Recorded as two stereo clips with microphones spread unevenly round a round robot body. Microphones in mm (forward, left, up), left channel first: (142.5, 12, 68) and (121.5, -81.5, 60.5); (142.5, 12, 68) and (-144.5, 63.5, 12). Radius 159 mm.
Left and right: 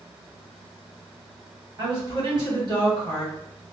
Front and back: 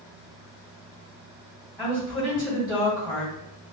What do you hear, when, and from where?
1.8 s a woman speaking: 110° right, 1.9 m